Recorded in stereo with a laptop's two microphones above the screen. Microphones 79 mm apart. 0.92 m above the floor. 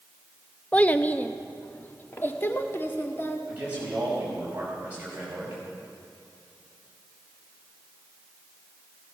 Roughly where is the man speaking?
Right.